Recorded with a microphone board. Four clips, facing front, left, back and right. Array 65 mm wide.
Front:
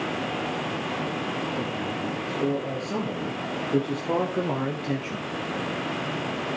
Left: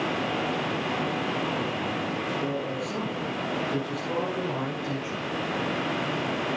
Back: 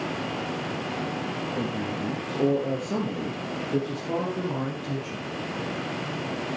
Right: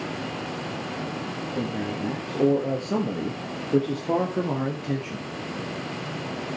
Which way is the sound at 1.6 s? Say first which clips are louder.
Even, even; 120° right.